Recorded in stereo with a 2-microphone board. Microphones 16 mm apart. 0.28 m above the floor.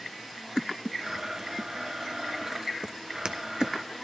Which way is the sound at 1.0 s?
35° right (ahead or behind).